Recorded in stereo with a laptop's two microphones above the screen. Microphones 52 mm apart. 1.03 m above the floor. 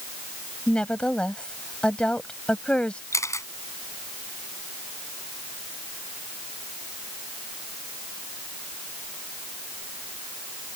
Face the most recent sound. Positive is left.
turn(degrees=85)